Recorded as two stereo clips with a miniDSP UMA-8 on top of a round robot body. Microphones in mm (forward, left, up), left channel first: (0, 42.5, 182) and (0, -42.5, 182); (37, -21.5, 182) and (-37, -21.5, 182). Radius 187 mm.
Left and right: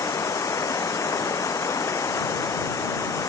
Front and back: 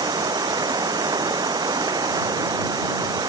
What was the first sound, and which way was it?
Running water, 145° left.